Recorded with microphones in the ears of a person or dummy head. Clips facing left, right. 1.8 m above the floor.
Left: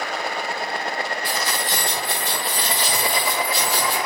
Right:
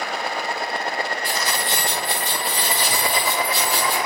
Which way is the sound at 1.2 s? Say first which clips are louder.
Even; 30° right (ahead or behind).